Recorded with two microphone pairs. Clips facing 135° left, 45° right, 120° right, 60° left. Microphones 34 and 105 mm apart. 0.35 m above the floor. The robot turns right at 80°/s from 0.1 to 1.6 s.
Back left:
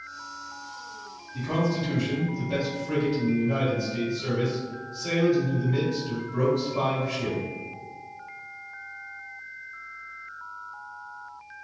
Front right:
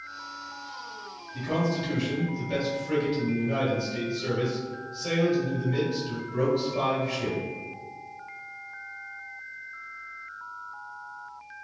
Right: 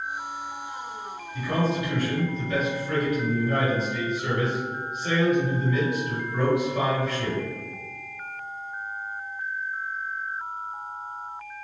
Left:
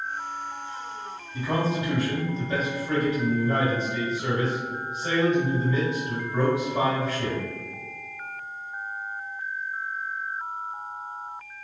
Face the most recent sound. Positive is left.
turn(degrees=20)